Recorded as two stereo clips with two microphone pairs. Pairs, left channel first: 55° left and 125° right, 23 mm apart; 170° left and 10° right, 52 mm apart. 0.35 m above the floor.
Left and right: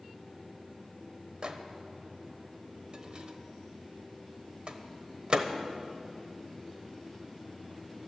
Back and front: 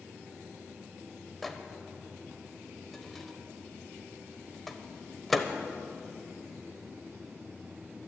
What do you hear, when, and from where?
1.4 s a microwave: 100° right, 0.9 m